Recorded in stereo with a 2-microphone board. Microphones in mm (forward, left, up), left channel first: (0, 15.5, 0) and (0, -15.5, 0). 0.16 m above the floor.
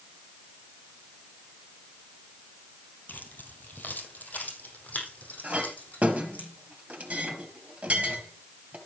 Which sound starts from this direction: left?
Keys jangling, at 3.1 s.